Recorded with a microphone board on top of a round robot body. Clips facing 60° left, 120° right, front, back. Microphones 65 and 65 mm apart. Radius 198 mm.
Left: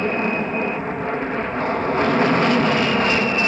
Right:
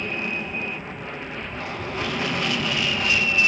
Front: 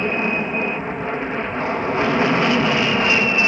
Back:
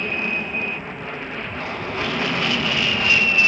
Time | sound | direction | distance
0.0 | an aircraft | 50° left | ?